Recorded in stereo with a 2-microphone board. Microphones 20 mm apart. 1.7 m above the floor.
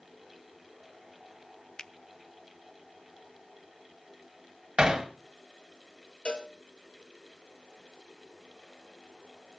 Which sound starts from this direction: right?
Hammering, at 4.8 s.